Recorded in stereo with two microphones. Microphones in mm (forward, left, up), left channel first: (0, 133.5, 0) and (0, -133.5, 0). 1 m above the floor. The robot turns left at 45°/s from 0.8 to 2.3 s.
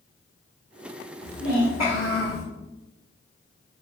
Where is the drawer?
I don't hear a drawer.